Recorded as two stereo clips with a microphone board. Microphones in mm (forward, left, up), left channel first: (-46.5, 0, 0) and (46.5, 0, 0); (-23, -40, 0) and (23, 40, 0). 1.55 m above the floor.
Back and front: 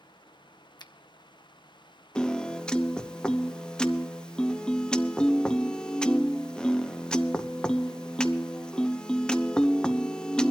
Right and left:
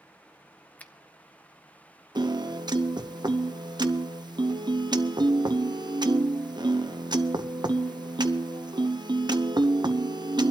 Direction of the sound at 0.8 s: 170° left.